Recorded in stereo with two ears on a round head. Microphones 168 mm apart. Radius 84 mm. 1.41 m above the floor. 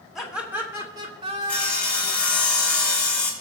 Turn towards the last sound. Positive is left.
turn(degrees=5)  # may be behind; listen again after turning